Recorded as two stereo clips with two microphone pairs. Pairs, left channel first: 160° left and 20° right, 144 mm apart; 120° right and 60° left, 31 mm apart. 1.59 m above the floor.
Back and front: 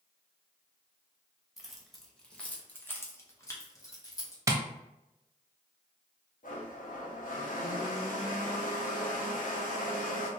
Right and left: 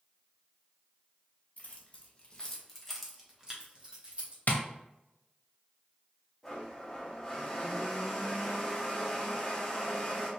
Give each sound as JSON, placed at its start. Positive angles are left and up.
{"t": 1.6, "sound": "keys jangling", "azimuth_deg": -110, "distance_m": 1.0}
{"t": 4.5, "sound": "tapping", "azimuth_deg": -90, "distance_m": 0.5}
{"t": 6.4, "sound": "a blender", "azimuth_deg": 165, "distance_m": 0.9}